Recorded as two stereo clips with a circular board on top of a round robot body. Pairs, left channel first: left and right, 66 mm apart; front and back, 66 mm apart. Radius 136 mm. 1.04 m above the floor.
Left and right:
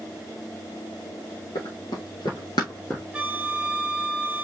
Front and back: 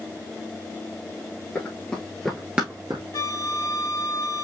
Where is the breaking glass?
I don't hear breaking glass.